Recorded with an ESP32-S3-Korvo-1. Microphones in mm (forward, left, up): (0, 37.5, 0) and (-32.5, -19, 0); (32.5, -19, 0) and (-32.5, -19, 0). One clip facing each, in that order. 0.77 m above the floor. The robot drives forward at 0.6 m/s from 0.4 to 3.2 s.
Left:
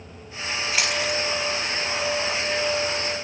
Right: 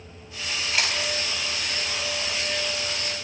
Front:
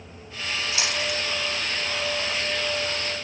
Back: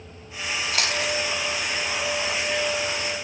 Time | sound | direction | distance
0.7 | chewing | 145° left | 5.5 m